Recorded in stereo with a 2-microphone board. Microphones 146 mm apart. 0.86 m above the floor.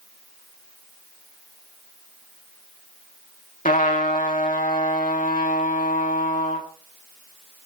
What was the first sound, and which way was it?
A trumpet, 65° left (ahead or behind).